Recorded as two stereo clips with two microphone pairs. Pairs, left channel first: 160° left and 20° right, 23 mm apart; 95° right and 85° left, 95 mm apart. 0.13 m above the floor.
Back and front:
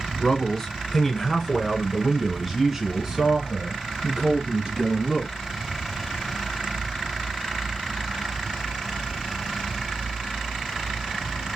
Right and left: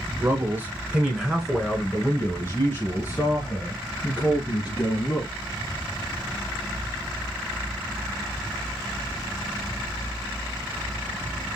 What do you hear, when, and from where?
0.2 s a man speaking: 115° left, 1.9 m; by 5.3 s 65° right, 3 m